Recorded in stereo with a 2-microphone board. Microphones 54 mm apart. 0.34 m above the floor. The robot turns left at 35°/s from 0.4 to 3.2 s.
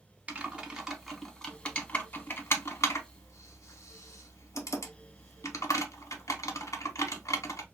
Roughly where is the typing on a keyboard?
Right.